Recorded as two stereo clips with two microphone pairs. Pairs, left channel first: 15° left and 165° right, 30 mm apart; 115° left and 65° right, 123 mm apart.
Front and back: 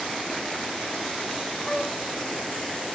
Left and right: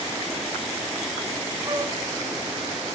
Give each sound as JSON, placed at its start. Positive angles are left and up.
{"t": 1.6, "sound": "a flute", "azimuth_deg": -65, "distance_m": 0.6}